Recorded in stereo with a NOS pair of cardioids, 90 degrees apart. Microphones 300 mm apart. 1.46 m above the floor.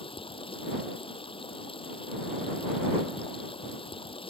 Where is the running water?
20° left.